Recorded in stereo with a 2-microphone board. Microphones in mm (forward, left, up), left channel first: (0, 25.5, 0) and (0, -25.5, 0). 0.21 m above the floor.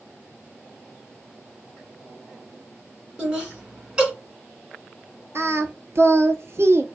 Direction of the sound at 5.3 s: 60° right (ahead or behind).